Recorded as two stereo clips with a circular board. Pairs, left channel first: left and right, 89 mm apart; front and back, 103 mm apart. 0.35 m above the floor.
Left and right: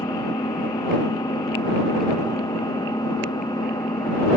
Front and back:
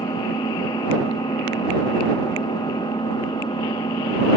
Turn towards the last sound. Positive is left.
turn(degrees=45)